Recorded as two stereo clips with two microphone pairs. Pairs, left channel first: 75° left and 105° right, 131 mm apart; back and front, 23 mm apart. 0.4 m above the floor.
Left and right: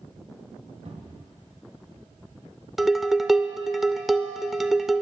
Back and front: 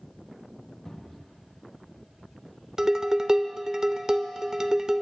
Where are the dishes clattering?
20° right, 0.5 m.